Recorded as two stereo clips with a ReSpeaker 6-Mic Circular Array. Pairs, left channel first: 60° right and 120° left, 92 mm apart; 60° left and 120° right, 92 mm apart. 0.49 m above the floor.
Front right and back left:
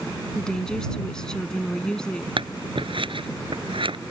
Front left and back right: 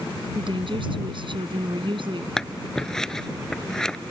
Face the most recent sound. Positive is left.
turn(degrees=145)